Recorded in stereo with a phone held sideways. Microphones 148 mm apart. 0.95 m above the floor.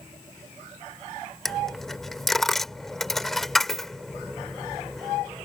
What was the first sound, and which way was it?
A dropped coin, centre (ahead or behind).